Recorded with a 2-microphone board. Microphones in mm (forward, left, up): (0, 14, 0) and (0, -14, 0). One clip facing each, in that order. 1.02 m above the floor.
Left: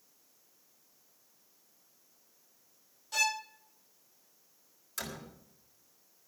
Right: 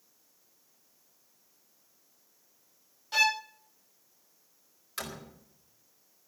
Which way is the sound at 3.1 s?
25° right (ahead or behind).